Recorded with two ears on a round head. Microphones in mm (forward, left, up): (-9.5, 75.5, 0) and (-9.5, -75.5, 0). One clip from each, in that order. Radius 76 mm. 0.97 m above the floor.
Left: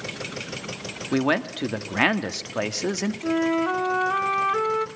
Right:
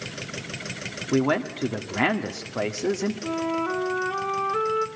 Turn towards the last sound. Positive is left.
turn(degrees=50)  # may be behind; listen again after turning